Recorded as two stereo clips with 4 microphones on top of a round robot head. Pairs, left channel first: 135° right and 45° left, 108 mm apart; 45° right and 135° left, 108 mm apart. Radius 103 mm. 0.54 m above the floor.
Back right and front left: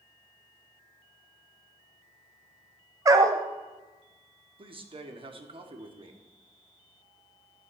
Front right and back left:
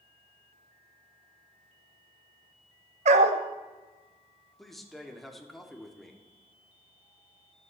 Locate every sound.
3.0 s a dog barking: 110° left, 0.6 m
4.6 s a man speaking: 40° left, 1.6 m